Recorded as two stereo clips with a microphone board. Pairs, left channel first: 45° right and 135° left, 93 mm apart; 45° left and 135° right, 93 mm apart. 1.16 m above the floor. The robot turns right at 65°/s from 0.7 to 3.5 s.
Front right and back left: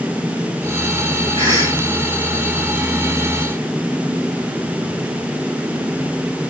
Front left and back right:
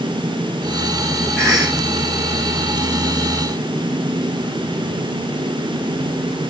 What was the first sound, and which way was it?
A cough, 125° left.